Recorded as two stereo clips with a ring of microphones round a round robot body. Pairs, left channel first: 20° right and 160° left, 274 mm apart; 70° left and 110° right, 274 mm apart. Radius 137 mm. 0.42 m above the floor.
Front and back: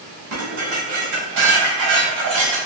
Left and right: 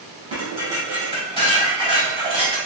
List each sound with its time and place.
0.3 s dishes clattering: straight behind, 1.7 m